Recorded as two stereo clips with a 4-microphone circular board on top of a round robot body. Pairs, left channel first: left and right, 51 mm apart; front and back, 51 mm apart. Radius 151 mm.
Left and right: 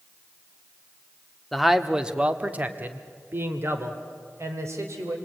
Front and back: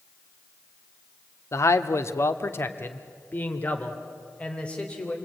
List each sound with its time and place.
1.5 s a man speaking: straight ahead, 1.3 m; by 5.2 s 70° right, 3 m